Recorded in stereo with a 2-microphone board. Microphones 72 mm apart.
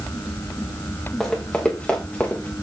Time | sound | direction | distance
1.2 | running footsteps | 10° left (ahead or behind) | 4 m